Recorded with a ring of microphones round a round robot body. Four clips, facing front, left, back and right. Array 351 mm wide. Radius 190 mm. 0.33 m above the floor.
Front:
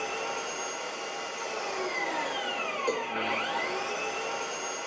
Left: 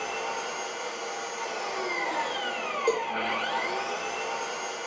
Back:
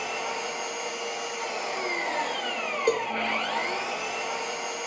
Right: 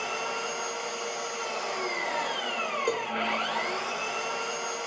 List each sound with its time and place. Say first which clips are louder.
0.0 s an engine running: even, back 2 dB; 145° right, 1.0 m
2.9 s a cowbell: left 5 dB, back 7 dB; straight behind, 1.2 m